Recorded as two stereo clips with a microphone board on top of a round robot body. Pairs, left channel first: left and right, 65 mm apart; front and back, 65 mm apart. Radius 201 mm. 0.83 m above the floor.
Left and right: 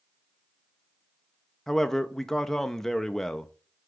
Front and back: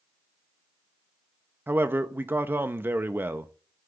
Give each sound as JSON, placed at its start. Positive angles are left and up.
{"t": 1.7, "sound": "a man speaking", "azimuth_deg": 165, "distance_m": 0.7}